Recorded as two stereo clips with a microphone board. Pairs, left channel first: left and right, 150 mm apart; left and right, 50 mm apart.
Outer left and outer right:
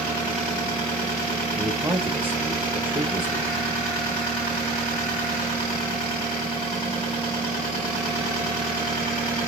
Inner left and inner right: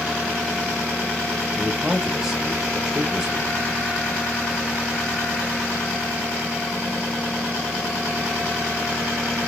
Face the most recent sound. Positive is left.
turn(degrees=-10)  # may be behind; listen again after turning